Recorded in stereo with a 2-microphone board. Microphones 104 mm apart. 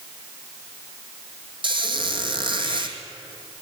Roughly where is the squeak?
Right.